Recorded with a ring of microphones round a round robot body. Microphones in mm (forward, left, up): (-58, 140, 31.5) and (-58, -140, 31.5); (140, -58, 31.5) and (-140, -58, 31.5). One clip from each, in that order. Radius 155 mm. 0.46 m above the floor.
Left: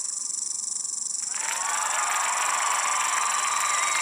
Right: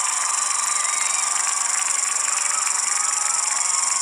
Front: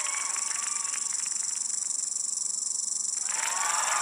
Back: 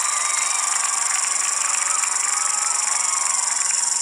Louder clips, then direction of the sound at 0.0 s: Right 10 dB, back 10 dB; 130° right.